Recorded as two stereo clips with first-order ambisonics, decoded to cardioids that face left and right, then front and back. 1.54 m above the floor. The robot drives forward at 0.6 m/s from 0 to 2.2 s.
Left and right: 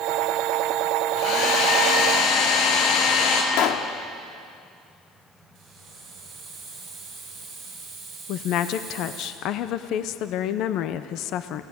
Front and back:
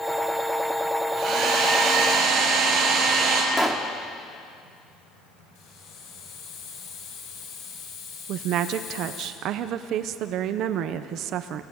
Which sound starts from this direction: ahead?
A hiss, at 5.5 s.